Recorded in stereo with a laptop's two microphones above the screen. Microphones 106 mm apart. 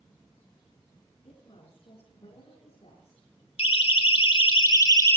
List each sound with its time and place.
1.2 s a woman speaking: 65° left (ahead or behind), 7 m; by 3.3 s 75° left (ahead or behind), 7 m
3.6 s a siren: 70° left (ahead or behind), 2.5 m; by 5.2 s 25° left (ahead or behind), 1.5 m